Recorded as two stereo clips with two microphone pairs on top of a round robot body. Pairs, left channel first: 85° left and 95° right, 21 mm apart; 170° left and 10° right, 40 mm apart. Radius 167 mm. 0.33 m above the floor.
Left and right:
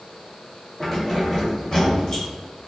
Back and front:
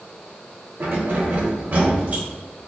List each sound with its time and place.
0.8 s keys jangling: 5° left, 1.7 m; by 2.2 s 30° left, 2.5 m